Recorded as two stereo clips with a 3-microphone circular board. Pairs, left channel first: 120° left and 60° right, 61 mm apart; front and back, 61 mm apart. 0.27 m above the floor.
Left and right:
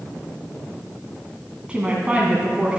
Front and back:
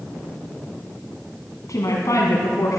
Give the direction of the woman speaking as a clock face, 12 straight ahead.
12 o'clock.